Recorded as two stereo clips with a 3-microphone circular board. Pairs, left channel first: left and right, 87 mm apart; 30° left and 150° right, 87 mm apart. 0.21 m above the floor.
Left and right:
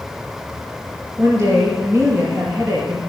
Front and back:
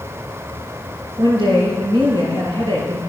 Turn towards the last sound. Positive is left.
turn(degrees=-140)